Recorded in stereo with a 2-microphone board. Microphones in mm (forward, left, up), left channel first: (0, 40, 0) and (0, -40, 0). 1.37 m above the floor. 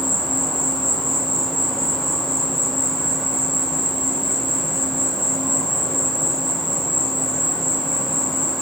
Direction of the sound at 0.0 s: Centre (ahead or behind).